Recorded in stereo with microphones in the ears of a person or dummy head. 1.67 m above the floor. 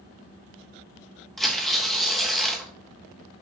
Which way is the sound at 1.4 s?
5° left (ahead or behind).